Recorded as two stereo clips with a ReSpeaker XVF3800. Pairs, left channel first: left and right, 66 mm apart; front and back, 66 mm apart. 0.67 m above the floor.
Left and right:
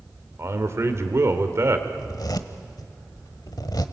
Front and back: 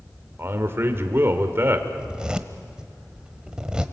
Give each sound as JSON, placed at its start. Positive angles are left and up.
{"t": 0.4, "sound": "a man speaking", "azimuth_deg": -130, "distance_m": 2.0}
{"t": 2.0, "sound": "a zipper", "azimuth_deg": 100, "distance_m": 1.1}